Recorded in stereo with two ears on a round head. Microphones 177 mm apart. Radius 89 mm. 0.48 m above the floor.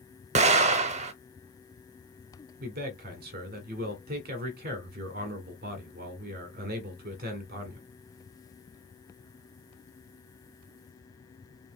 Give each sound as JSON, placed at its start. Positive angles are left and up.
{"t": 0.3, "sound": "an explosion", "side_deg": -35, "distance_m": 0.6}
{"t": 2.6, "sound": "a man speaking", "side_deg": -50, "distance_m": 1.4}